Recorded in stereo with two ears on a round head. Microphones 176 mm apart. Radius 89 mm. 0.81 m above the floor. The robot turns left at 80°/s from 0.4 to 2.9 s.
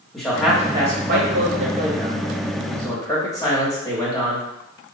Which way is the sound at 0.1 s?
Centre (ahead or behind).